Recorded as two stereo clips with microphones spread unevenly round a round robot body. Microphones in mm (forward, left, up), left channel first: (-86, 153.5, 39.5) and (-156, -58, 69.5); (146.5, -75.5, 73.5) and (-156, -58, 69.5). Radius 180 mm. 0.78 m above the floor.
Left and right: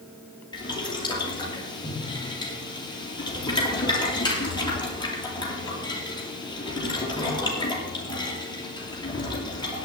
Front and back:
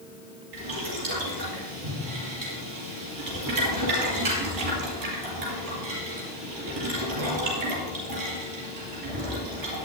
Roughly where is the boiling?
Behind left.